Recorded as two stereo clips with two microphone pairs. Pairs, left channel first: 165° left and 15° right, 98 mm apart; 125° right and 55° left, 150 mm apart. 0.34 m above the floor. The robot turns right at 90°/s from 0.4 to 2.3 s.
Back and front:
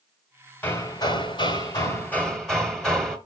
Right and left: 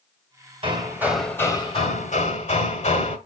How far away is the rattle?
I don't hear a rattle.